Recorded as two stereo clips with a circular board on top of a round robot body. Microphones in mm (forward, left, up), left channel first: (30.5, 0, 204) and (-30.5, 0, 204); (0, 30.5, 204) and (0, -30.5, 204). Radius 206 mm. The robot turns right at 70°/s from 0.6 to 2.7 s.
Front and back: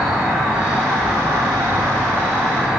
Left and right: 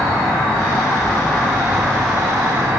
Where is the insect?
105° left, 2 m; by 2.8 s 110° right, 2 m.